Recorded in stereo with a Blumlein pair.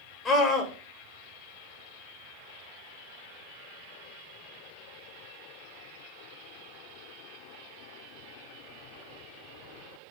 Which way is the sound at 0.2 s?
20° left.